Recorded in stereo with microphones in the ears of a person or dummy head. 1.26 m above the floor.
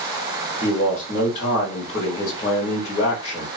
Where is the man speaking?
30° left (ahead or behind), 1.3 m.